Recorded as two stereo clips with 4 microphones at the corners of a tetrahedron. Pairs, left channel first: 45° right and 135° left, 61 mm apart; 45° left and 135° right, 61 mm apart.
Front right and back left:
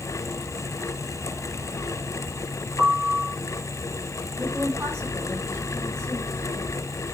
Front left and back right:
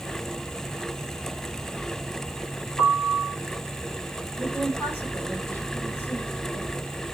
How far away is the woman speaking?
About 3.5 m.